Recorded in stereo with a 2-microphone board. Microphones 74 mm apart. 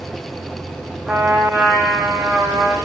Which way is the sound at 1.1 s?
5° right (ahead or behind).